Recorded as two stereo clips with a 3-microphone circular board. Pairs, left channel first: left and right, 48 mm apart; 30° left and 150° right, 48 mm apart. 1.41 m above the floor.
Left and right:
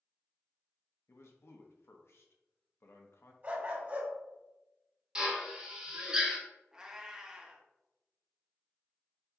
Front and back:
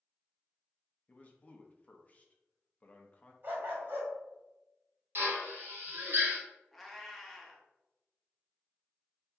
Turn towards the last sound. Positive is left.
turn(degrees=-50)